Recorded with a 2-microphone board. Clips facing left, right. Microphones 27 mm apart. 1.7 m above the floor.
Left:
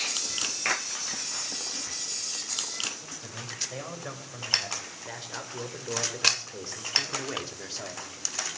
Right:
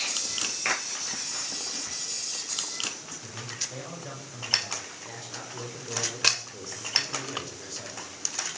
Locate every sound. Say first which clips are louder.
3.0 s a man speaking: even; 25° left (ahead or behind), 7 m; by 8.1 s 35° left (ahead or behind), 3 m